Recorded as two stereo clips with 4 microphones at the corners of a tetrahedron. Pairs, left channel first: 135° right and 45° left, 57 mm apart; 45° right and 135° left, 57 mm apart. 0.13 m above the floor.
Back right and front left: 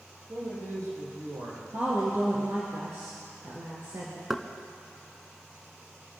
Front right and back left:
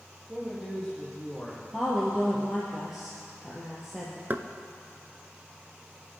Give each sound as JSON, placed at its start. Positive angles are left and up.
{"t": 0.3, "sound": "a man speaking", "azimuth_deg": 40, "distance_m": 6.5}
{"t": 1.7, "sound": "a woman speaking", "azimuth_deg": 50, "distance_m": 3.0}
{"t": 4.3, "sound": "knocking", "azimuth_deg": 125, "distance_m": 0.9}